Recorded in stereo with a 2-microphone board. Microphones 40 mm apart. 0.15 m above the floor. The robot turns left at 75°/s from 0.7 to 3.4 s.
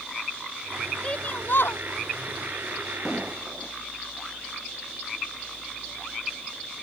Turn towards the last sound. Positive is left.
turn(degrees=-20)  # may be behind; listen again after turning